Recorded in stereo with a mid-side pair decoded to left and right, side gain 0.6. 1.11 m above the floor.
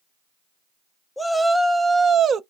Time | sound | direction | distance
1.2 | a shout | straight ahead | 0.9 m